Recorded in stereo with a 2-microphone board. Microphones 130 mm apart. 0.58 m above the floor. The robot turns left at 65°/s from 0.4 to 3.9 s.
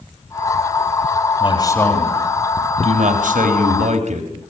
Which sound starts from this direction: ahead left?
A man speaking, at 1.4 s.